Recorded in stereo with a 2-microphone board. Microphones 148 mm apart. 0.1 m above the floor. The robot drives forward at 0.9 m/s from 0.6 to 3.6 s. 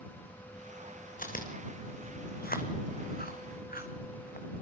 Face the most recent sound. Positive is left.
turn(degrees=70)  # may be behind; listen again after turning